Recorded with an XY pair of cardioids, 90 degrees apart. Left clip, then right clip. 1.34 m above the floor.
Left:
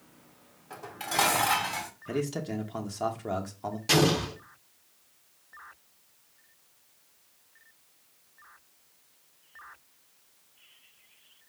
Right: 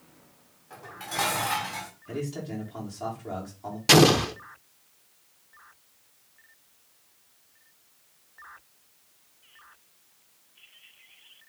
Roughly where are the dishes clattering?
Ahead left.